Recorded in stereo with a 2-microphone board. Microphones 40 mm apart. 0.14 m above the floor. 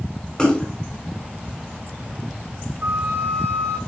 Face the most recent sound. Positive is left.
turn(degrees=-70)  # may be behind; listen again after turning